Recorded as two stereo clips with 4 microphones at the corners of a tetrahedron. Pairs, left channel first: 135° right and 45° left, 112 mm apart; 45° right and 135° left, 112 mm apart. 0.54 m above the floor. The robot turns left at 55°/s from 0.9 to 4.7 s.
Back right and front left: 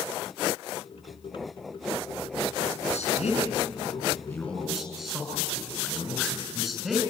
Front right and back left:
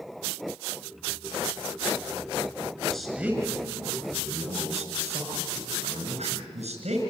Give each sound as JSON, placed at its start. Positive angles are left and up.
{"t": 2.9, "sound": "a man speaking", "azimuth_deg": -130, "distance_m": 6.0}